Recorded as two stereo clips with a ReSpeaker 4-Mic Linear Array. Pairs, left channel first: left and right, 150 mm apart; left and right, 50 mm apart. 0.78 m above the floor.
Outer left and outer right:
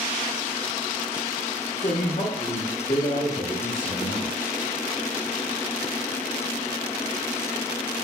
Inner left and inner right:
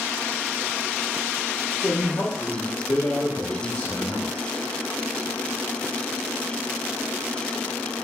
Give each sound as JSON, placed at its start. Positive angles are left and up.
{"t": 1.8, "sound": "a man speaking", "side_deg": 50, "distance_m": 0.8}